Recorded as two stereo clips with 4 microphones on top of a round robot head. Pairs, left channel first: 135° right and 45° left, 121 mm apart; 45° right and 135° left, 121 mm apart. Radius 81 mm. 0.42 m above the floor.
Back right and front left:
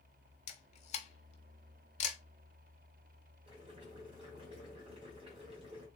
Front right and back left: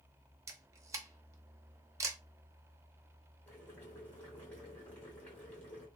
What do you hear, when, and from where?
0.5 s a camera shutter: 160° right, 0.5 m
3.5 s boiling: 25° left, 1.7 m